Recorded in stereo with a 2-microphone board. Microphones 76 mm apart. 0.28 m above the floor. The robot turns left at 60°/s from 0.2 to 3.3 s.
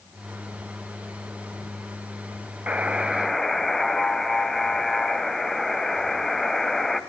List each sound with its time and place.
2.7 s a buzzer: 145° right, 1.6 m; by 7.0 s 175° left, 1.6 m